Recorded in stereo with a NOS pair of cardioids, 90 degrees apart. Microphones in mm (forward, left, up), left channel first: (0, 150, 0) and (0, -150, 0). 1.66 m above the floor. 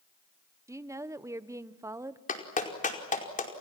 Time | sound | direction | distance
0.7 | a woman speaking | 10° right | 1.2 m
2.3 | a clap | 25° left | 5 m